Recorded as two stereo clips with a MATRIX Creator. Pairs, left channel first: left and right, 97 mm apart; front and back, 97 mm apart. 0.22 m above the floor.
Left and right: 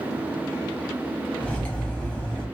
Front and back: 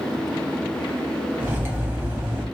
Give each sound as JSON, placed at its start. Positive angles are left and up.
{"t": 1.4, "sound": "cutlery clinking", "azimuth_deg": 150, "distance_m": 0.6}